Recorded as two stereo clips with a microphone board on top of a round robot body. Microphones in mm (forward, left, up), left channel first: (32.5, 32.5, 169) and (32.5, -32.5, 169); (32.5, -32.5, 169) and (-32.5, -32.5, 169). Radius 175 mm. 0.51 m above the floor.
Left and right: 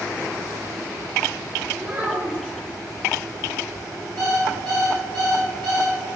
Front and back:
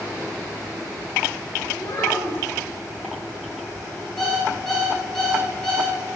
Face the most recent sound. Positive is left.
turn(degrees=-85)